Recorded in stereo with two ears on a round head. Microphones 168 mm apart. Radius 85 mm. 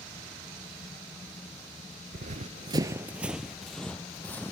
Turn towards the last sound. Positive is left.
turn(degrees=10)  # may be behind; listen again after turning